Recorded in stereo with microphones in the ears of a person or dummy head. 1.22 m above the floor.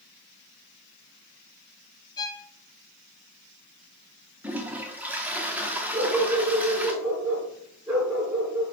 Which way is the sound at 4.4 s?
5° right (ahead or behind).